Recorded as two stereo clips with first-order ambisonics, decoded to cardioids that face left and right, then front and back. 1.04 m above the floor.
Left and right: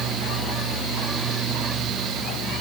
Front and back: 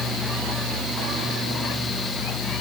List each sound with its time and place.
Only background noise.